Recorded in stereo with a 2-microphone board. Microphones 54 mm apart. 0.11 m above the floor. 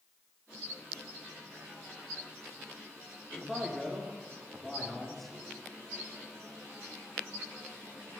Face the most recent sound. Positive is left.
turn(degrees=5)  # may be behind; listen again after turning